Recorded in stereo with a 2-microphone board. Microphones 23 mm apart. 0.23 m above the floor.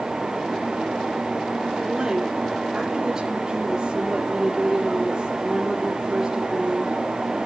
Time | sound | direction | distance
1.8 | a woman speaking | 35° right (ahead or behind) | 7.5 m